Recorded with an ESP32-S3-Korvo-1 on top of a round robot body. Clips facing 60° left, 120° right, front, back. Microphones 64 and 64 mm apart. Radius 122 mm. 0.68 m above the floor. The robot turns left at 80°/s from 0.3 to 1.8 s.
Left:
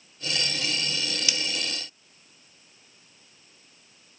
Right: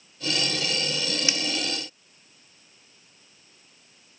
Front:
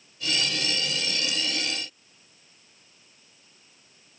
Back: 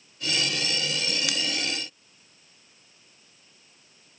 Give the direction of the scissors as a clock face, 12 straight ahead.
6 o'clock.